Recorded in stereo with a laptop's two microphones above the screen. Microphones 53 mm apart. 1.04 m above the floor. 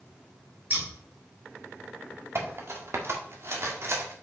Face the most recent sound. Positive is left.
turn(degrees=-50)  # may be behind; listen again after turning